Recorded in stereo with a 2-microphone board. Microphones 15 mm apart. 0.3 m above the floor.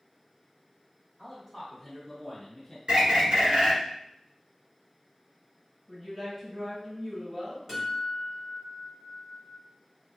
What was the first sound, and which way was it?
A man speaking, 25° right (ahead or behind).